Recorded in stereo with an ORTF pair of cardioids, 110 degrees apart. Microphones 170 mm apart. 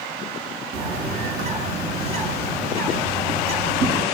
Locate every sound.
0.7 s a bird: 60° right, 9.5 m